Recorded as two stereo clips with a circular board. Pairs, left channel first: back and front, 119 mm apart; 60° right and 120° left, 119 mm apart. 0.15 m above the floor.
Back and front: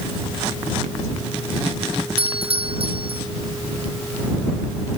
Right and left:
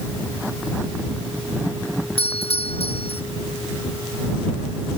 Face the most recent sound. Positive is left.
turn(degrees=-35)